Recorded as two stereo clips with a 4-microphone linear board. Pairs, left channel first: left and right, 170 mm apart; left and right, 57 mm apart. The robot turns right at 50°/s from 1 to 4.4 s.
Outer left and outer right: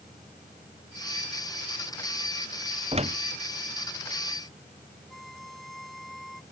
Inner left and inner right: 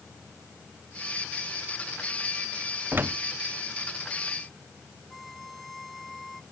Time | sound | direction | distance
2.9 | a door slam | 35° right (ahead or behind) | ?
5.1 | a violin | centre (ahead or behind) | ?